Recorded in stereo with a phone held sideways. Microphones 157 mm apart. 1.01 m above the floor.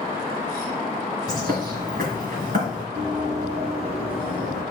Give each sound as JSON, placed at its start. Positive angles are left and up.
{"t": 1.3, "sound": "a bird", "side_deg": -75, "distance_m": 2.5}
{"t": 3.0, "sound": "running footsteps", "side_deg": -55, "distance_m": 3.5}